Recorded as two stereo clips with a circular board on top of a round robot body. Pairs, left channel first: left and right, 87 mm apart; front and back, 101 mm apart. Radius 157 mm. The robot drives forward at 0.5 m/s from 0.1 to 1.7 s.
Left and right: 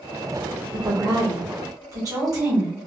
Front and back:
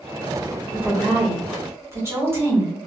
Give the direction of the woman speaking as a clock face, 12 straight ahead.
3 o'clock.